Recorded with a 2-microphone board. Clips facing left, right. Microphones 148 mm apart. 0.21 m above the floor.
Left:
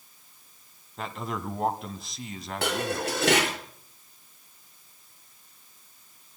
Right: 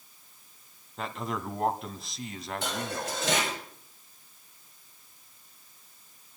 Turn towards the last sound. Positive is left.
turn(degrees=75)  # may be behind; listen again after turning